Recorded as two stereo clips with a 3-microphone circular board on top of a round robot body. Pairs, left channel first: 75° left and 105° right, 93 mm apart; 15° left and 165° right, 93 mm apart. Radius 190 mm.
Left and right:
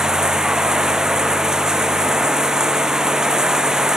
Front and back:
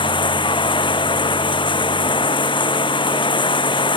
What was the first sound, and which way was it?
Running water, 25° right.